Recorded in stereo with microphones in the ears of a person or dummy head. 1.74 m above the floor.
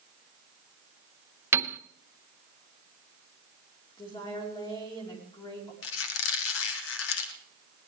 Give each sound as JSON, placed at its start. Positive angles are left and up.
{"t": 1.5, "sound": "a piano", "side_deg": -10, "distance_m": 0.6}
{"t": 4.0, "sound": "a woman speaking", "side_deg": 20, "distance_m": 4.5}
{"t": 5.8, "sound": "a squeak", "side_deg": 65, "distance_m": 1.6}